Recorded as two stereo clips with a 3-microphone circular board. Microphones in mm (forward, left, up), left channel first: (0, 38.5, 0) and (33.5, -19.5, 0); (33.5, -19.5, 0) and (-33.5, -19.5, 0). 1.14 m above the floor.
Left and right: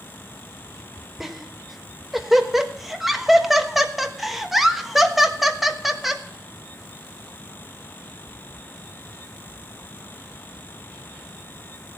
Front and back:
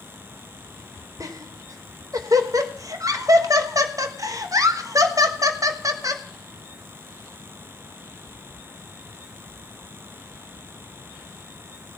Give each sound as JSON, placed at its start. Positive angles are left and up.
{"t": 1.2, "sound": "laughter", "azimuth_deg": -150, "distance_m": 1.2}